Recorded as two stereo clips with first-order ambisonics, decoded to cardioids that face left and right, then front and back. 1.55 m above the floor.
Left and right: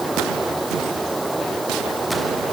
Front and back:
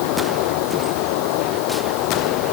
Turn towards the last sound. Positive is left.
turn(degrees=-5)